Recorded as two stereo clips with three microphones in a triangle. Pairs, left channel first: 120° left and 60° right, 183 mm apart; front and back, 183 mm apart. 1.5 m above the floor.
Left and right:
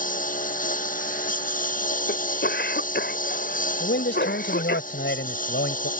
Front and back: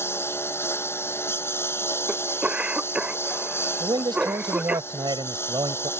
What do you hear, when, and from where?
0.0 s a lawn mower: 75° left
2.1 s a cough: 95° left
3.8 s a man speaking: 115° left